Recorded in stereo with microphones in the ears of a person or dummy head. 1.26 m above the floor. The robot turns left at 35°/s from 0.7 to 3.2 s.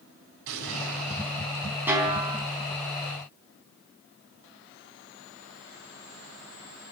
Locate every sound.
0.5 s an explosion: 75° right (ahead or behind), 4 m; by 1.5 s 70° right (ahead or behind), 4 m
1.9 s a snare drum: 10° right (ahead or behind), 4 m; by 2.4 s 30° right (ahead or behind), 4 m